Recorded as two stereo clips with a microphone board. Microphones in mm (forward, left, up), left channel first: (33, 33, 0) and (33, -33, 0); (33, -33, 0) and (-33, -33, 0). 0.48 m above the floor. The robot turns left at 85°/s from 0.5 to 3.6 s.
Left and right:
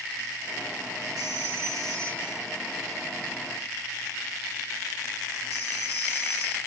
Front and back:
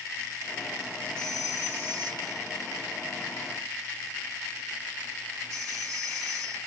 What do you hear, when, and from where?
1.2 s a phone ringing: 75° right, 1.5 m; by 6.6 s 75° left, 1.5 m